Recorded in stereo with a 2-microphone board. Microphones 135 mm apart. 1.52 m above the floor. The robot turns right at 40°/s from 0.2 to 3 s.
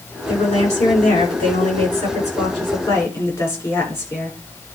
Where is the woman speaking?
50° left, 6 m; by 4.4 s 160° left, 6 m.